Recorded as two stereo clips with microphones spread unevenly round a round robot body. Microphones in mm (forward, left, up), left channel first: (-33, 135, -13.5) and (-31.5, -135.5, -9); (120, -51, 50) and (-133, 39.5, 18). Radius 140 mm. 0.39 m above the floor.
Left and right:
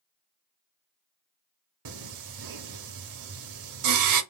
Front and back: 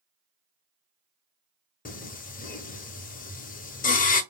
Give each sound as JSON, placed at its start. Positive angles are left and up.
{"t": 1.9, "sound": "singing", "azimuth_deg": -80, "distance_m": 0.8}